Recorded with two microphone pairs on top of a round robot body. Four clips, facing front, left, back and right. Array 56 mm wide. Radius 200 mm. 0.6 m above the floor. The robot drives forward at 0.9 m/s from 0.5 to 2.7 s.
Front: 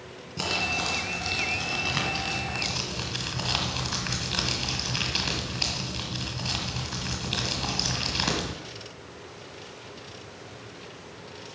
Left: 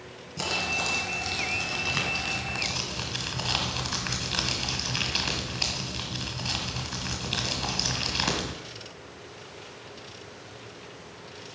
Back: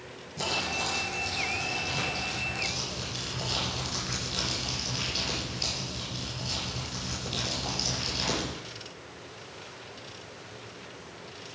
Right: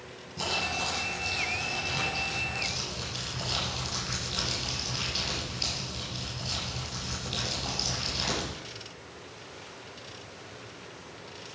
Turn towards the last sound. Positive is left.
turn(degrees=50)